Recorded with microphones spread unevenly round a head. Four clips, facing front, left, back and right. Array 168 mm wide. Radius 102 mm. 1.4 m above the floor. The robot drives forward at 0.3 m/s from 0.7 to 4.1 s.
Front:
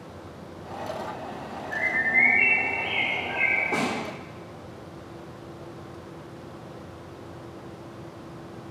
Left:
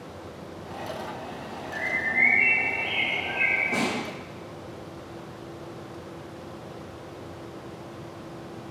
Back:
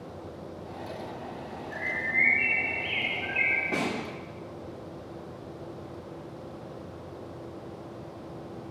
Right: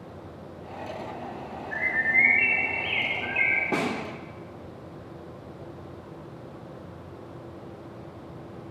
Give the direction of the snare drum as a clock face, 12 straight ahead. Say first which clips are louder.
Right 1 dB, front 2 dB; 3 o'clock.